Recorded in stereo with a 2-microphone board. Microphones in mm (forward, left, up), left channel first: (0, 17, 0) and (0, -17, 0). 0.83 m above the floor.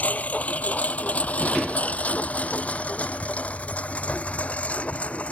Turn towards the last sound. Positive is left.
turn(degrees=40)  # may be behind; listen again after turning